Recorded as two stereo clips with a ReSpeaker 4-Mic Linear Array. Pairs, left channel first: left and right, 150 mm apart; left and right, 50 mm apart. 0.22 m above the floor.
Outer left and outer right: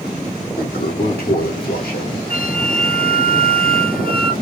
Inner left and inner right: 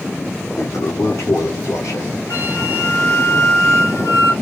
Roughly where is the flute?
Left.